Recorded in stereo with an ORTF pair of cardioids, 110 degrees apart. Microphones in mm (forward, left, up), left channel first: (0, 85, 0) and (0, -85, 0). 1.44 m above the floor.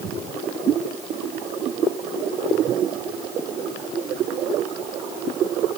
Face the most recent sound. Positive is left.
No sound to turn to.